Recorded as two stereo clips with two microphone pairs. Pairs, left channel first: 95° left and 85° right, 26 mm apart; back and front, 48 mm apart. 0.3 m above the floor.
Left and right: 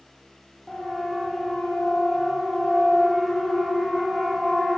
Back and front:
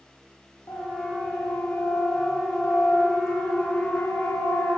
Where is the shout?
I don't hear a shout.